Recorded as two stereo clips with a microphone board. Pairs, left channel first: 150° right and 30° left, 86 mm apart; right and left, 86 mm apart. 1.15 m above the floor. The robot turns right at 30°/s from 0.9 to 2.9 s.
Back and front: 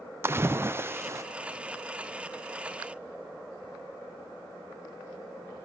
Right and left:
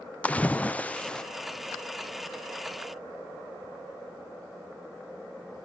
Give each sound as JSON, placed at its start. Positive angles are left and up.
{"t": 0.2, "sound": "a splash", "azimuth_deg": -20, "distance_m": 0.5}